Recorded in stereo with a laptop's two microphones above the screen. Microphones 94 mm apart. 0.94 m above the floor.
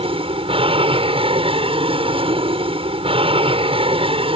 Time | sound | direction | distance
0.0 | an aircraft | 70° right (ahead or behind) | ?